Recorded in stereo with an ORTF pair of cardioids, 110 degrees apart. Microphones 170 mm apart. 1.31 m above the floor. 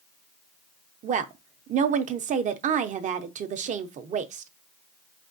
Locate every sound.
1.0 s a woman speaking: 45° right, 0.6 m